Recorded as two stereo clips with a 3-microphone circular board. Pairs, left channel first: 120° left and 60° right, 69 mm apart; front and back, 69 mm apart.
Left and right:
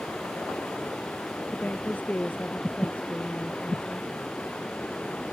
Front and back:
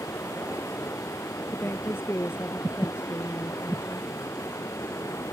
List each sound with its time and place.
0.0 s running water: 45° left
1.5 s a woman speaking: 55° left